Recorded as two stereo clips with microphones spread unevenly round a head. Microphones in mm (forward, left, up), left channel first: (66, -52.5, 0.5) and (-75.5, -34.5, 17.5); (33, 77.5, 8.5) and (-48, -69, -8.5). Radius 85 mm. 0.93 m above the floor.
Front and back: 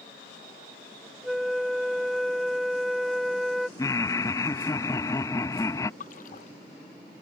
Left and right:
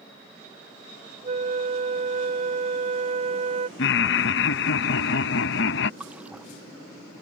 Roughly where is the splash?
Ahead right.